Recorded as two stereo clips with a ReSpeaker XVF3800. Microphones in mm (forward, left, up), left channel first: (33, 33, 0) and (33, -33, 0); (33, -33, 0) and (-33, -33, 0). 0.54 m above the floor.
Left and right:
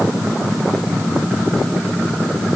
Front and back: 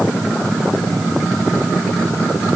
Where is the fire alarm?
I don't hear a fire alarm.